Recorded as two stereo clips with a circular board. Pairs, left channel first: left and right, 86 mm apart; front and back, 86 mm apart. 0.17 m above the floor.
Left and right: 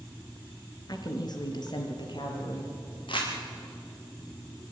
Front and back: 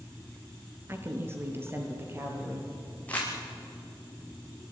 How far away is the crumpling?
About 5 m.